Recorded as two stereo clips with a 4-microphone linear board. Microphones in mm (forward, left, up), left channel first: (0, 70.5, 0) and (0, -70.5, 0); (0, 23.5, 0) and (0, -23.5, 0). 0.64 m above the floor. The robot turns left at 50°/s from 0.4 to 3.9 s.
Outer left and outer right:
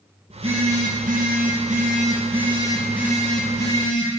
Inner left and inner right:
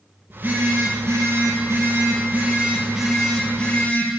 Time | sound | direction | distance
0.3 | a phone buzzing | 40° right | 3.5 m